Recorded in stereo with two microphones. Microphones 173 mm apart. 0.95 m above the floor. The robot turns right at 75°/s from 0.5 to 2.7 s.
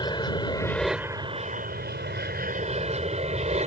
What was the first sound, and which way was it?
An aircraft, 155° left.